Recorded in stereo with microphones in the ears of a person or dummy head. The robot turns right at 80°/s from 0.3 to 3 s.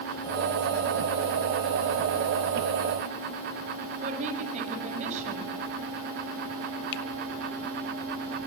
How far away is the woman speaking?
About 7 m.